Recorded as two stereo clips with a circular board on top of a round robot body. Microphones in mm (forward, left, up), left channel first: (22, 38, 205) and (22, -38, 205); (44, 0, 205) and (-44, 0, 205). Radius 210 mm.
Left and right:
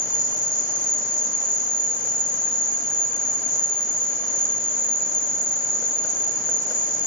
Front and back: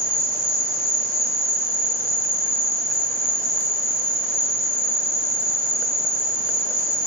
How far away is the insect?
About 1.0 m.